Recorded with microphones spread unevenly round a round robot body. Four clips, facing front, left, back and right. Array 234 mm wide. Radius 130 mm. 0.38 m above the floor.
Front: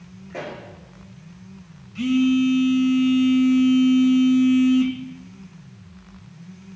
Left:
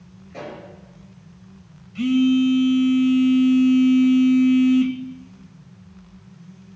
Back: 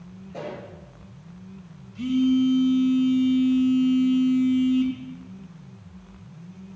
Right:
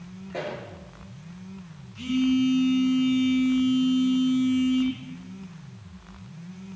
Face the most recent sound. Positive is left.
turn(degrees=45)